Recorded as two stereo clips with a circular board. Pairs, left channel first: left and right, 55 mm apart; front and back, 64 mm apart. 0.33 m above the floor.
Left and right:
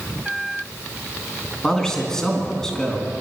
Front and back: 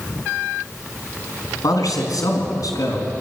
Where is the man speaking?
15° left, 4 m.